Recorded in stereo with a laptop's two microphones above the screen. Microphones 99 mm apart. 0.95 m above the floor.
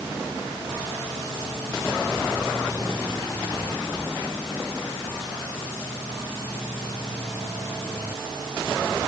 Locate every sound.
Only background noise.